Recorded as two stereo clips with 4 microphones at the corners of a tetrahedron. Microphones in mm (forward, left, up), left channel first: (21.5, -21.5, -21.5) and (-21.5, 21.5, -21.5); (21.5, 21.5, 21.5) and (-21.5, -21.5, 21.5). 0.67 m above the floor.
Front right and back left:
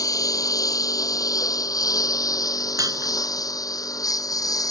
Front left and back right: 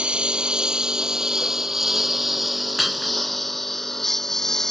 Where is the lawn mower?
60° right; by 4.7 s 35° right.